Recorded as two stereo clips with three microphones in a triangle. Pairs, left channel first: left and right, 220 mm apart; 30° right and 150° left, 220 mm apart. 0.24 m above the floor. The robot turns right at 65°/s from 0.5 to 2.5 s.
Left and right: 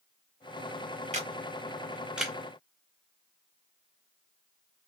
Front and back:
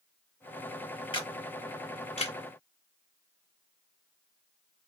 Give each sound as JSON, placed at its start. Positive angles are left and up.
{"t": 1.1, "sound": "a camera shutter", "azimuth_deg": -75, "distance_m": 0.9}